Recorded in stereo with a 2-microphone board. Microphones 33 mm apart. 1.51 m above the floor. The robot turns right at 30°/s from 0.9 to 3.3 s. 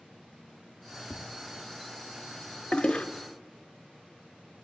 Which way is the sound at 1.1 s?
55° left (ahead or behind).